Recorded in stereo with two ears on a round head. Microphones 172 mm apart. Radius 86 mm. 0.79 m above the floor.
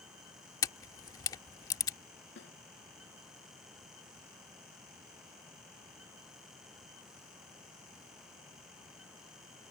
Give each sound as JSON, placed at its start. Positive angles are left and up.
{"t": 0.6, "sound": "a camera shutter", "side_deg": 20}
{"t": 2.4, "sound": "a snare drum", "side_deg": 60}